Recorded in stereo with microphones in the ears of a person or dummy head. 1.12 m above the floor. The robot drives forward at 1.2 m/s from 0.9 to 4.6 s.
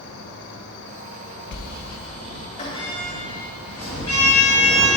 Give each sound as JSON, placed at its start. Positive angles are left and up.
{"t": 0.0, "sound": "an insect", "side_deg": 60, "distance_m": 1.1}
{"t": 1.5, "sound": "a sliding door", "side_deg": 60, "distance_m": 0.7}